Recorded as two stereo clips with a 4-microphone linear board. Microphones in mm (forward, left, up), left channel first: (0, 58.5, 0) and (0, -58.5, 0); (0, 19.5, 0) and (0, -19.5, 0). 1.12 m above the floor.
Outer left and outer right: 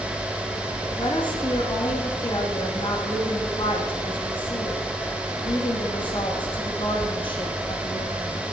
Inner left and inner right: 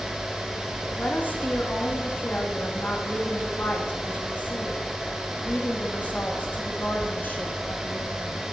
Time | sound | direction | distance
1.0 | a woman speaking | 45° left (ahead or behind) | 2.5 m